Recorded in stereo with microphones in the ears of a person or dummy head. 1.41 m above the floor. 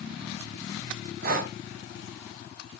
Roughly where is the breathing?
Right.